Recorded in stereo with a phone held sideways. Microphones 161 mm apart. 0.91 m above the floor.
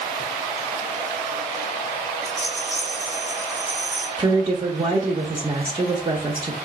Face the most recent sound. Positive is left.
turn(degrees=-30)  # may be behind; listen again after turning